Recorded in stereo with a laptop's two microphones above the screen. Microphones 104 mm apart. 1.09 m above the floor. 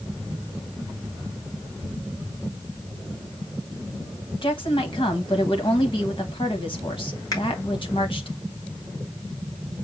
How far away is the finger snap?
About 1.6 m.